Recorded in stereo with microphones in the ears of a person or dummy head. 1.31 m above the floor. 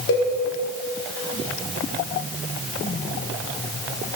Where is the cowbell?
70° left (ahead or behind), 1.7 m.